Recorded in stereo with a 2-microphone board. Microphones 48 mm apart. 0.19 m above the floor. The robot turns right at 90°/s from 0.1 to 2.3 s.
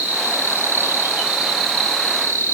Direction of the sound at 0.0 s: 135° right.